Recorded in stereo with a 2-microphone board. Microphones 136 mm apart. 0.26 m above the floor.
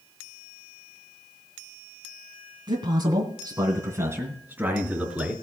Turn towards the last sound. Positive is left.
turn(degrees=-5)  # may be behind; listen again after turning